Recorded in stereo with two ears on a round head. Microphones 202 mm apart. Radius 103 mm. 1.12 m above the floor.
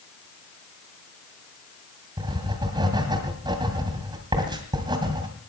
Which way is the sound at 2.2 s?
20° right (ahead or behind).